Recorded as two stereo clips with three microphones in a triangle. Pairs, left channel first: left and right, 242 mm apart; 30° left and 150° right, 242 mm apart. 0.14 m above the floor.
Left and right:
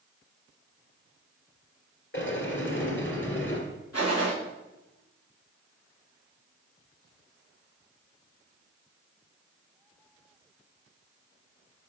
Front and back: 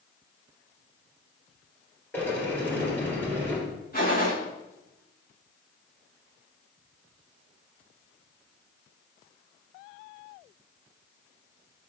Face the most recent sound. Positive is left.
turn(degrees=80)